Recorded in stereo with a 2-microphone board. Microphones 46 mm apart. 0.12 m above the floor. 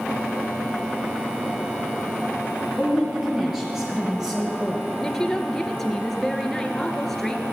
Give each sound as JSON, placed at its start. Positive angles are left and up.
{"t": 2.8, "sound": "a woman speaking", "side_deg": -10, "distance_m": 3.0}
{"t": 5.0, "sound": "a woman speaking", "side_deg": 5, "distance_m": 1.9}